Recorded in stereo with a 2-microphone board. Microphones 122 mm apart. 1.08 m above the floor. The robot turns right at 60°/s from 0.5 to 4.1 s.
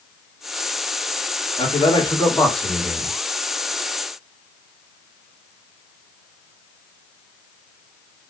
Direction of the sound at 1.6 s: 115° left.